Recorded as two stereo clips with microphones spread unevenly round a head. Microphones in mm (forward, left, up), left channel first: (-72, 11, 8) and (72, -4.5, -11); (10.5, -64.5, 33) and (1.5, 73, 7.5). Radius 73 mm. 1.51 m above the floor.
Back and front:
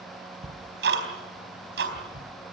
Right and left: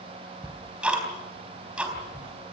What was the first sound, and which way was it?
Ticking, 10° left.